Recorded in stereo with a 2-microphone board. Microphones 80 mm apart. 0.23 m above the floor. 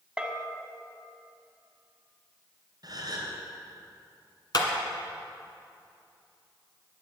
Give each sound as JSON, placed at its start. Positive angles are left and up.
{"t": 0.2, "sound": "a bell", "side_deg": -10, "distance_m": 1.4}
{"t": 2.8, "sound": "a gasp", "side_deg": -50, "distance_m": 3.5}
{"t": 4.5, "sound": "a clap", "side_deg": 55, "distance_m": 1.8}